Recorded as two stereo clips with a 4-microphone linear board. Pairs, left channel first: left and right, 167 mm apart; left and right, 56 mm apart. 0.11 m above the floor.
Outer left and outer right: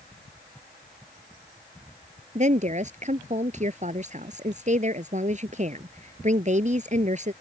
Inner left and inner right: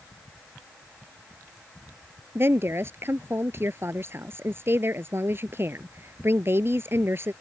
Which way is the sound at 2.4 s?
45° right (ahead or behind).